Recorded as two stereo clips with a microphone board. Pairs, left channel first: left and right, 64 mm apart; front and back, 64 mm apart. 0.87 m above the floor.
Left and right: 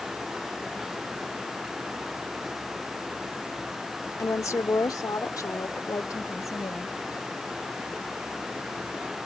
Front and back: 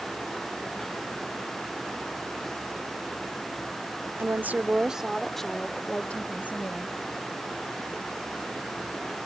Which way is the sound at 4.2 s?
130° left.